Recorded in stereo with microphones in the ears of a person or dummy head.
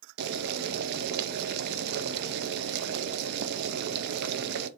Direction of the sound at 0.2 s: 55° right (ahead or behind).